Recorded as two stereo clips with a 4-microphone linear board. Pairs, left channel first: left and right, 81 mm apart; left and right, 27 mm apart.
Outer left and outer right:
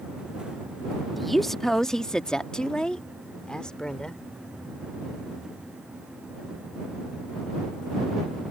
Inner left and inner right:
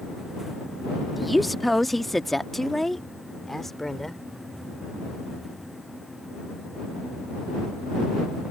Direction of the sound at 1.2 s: Centre (ahead or behind).